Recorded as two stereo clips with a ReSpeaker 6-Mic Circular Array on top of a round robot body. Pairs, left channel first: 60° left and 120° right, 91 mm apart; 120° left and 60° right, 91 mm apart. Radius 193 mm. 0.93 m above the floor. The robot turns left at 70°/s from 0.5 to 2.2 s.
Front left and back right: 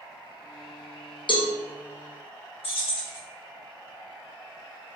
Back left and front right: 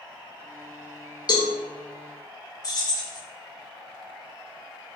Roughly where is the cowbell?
Left.